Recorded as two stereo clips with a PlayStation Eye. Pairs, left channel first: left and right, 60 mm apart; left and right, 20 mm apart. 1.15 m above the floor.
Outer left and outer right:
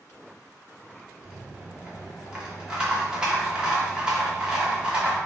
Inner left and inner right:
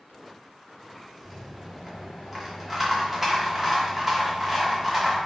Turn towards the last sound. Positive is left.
turn(degrees=-15)  # may be behind; listen again after turning